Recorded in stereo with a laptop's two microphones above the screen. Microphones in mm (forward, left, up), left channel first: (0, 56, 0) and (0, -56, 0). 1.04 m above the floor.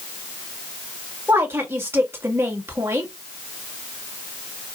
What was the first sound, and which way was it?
A woman speaking, 20° right (ahead or behind).